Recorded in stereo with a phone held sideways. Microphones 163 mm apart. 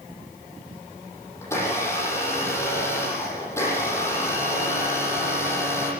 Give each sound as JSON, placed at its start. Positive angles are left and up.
{"t": 1.4, "sound": "a blender", "side_deg": 15, "distance_m": 10.0}